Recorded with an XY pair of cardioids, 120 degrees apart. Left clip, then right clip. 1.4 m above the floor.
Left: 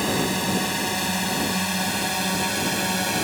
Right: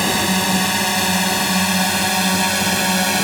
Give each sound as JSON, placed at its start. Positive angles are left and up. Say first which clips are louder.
{"t": 0.0, "sound": "a drone", "louder": "right 6 dB", "azimuth_deg": -45}